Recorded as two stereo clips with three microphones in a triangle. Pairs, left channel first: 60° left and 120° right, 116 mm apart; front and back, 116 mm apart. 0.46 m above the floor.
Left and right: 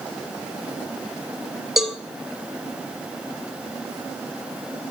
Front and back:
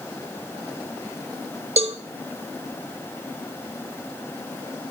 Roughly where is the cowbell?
Behind left.